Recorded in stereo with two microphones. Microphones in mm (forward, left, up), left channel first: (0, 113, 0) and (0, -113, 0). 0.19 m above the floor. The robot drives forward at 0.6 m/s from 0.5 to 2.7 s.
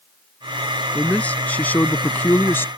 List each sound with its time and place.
0.9 s a man speaking: 5° left (ahead or behind); by 2.7 s 10° left (ahead or behind)